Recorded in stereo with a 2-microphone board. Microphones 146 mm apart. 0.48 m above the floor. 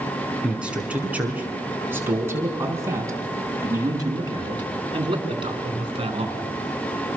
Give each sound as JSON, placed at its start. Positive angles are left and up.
{"t": 0.4, "sound": "a man speaking", "side_deg": -5, "distance_m": 6.0}